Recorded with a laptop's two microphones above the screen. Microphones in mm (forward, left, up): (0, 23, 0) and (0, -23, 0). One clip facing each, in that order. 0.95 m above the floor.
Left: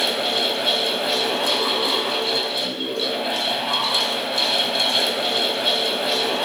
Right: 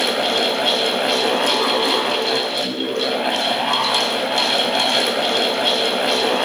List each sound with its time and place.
0.0 s a fan: 60° right (ahead or behind), 0.8 m